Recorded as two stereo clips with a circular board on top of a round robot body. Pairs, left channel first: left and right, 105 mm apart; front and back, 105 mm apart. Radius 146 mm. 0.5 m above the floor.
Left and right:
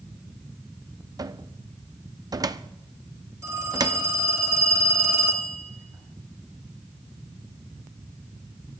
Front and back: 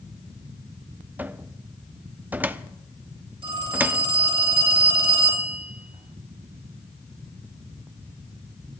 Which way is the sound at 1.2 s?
115° right.